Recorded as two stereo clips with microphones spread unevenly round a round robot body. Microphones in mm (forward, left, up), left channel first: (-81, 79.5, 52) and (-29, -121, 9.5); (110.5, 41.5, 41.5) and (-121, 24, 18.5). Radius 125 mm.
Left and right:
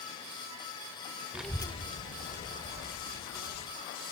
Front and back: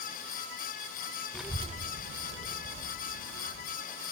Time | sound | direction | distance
1.3 | a child speaking | 90° right | 0.6 m